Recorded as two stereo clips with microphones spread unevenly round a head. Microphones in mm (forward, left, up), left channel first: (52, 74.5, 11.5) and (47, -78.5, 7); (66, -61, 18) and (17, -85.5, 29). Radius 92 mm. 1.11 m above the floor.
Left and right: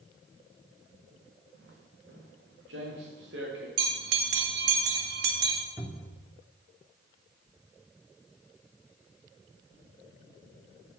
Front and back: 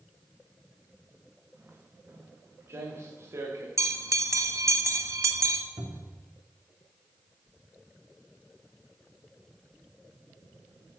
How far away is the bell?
About 1.8 m.